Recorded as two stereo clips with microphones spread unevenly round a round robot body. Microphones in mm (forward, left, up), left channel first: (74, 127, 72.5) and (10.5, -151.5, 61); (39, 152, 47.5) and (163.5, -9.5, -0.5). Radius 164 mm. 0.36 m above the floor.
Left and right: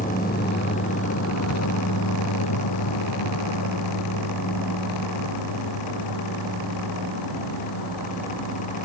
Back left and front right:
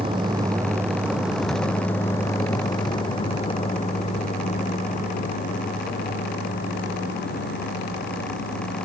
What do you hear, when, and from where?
0.0 s a vehicle: 15° left; by 8.9 s 90° left